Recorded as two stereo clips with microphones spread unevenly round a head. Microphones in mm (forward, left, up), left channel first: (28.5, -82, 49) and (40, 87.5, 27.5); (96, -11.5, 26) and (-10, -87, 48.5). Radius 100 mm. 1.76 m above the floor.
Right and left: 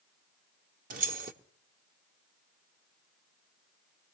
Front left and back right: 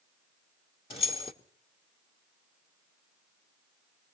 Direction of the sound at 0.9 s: 80° left.